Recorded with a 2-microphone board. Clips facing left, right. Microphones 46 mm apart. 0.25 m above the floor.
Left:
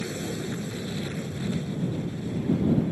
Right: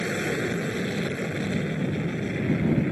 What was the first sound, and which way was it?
An aircraft, 70° right (ahead or behind).